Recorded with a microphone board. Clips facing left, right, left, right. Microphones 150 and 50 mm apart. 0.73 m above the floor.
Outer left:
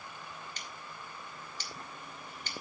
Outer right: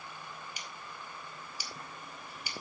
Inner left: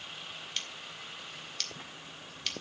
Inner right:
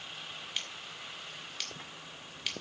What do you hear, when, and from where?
0.6 s scissors: 10° right (ahead or behind), 2 m